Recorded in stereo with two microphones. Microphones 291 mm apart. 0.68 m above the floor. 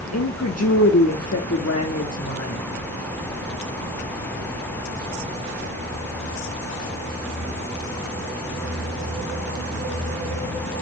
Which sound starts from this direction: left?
A woman speaking, at 0.1 s.